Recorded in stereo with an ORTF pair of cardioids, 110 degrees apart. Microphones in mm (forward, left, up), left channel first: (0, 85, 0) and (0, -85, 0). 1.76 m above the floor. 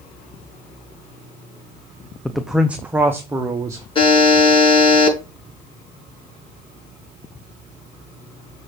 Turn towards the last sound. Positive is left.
turn(degrees=35)